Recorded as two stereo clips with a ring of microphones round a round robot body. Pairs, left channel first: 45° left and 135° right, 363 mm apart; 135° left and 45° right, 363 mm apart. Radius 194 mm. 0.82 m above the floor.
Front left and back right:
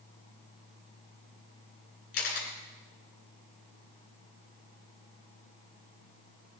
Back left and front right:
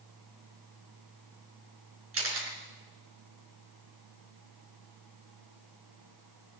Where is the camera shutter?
10° left, 4 m.